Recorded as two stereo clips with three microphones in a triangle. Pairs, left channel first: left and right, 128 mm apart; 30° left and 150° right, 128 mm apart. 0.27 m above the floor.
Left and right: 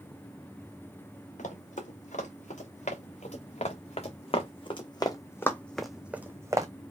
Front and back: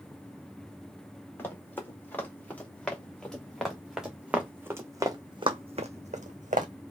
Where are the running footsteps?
105° left, 2.5 m; by 6.7 s 155° right, 1.0 m.